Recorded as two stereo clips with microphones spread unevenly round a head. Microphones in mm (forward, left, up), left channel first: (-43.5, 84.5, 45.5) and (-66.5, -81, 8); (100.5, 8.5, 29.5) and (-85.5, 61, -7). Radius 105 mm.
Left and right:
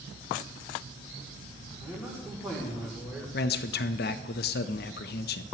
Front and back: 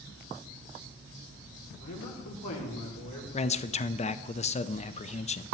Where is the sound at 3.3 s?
45° left, 0.5 m.